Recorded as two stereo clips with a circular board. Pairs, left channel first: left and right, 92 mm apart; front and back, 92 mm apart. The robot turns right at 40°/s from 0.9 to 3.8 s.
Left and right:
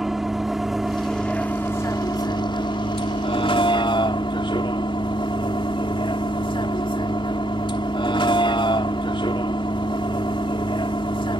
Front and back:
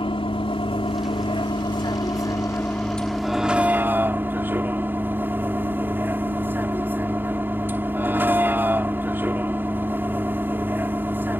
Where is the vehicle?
5° right; by 11.4 s 115° left.